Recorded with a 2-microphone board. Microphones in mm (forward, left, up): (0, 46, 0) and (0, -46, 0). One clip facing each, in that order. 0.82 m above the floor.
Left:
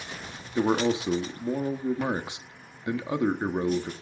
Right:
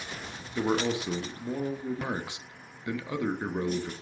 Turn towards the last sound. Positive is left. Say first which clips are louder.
# left 4 dB
turn(degrees=25)  # may be behind; listen again after turning